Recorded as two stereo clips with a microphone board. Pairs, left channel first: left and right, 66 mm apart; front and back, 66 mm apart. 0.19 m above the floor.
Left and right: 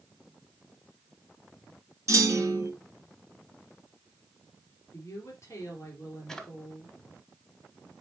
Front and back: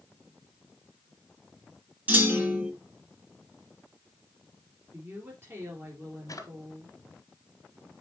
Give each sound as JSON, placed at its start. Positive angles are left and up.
{"t": 2.1, "sound": "a clunk", "azimuth_deg": -120, "distance_m": 1.7}
{"t": 4.9, "sound": "a woman speaking", "azimuth_deg": 130, "distance_m": 3.0}
{"t": 6.3, "sound": "a drawer", "azimuth_deg": 5, "distance_m": 1.2}